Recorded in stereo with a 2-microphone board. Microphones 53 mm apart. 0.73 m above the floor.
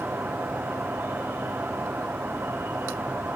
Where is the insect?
55° right (ahead or behind), 2 m.